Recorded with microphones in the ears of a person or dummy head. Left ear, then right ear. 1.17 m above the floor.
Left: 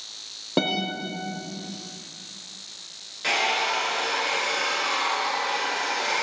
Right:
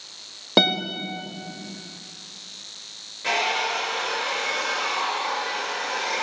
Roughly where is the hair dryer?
Centre.